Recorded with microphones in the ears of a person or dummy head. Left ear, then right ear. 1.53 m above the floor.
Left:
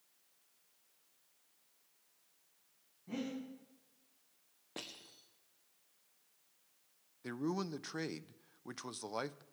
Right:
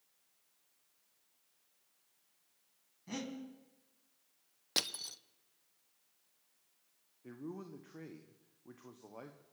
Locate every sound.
3.1 s breathing: 70° right (ahead or behind), 3.5 m
4.8 s crushing: 65° right (ahead or behind), 0.6 m
7.2 s a man speaking: 70° left (ahead or behind), 0.6 m